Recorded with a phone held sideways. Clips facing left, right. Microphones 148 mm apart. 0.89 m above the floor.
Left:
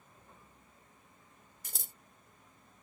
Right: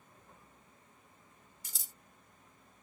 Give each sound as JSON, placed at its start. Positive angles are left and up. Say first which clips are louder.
{"t": 1.6, "sound": "scissors", "louder": "left 7 dB", "side_deg": 55}